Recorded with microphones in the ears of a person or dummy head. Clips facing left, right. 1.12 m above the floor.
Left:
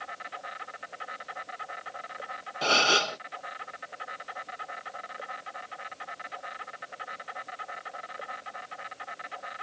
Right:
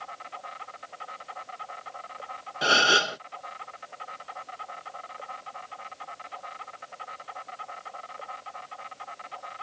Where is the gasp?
10° right (ahead or behind).